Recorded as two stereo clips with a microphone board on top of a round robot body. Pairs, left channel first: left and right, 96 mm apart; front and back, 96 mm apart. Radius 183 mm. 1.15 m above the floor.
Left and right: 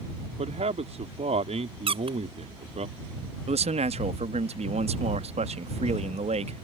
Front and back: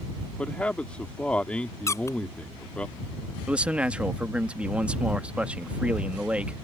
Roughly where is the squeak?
Ahead right.